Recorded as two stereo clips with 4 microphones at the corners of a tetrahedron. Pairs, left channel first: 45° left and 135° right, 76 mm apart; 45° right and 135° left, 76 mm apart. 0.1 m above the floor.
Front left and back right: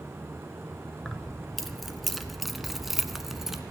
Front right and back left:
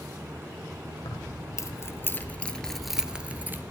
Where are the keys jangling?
40° right, 1.4 m; by 3.6 s 145° left, 1.0 m.